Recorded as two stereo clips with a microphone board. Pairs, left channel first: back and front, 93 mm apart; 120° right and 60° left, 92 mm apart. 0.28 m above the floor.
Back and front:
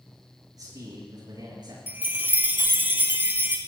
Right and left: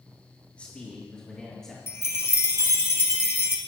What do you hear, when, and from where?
0.5 s a man speaking: 45° right, 5 m; by 1.8 s 35° right, 6 m
1.9 s a chime: 65° right, 1.7 m